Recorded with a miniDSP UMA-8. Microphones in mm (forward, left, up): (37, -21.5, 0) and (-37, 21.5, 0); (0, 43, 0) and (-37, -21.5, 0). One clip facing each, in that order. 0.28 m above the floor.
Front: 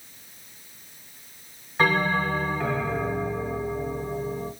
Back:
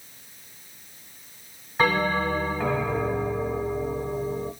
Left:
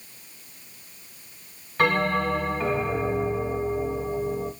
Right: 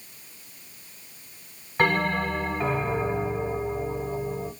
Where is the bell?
140° right, 1.5 m.